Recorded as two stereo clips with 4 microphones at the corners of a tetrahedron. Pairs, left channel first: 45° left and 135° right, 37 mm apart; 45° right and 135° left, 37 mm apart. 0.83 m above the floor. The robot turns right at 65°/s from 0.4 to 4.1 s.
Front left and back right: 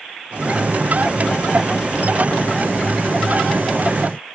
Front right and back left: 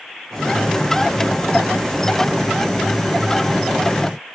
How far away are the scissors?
No scissors in this recording.